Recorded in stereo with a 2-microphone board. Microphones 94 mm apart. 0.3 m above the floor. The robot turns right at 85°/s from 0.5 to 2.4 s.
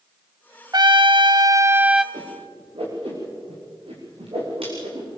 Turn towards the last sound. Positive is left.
turn(degrees=-80)